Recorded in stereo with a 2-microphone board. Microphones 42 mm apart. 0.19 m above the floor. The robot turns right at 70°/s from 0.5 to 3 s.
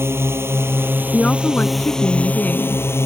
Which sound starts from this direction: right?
A drone, at 0.0 s.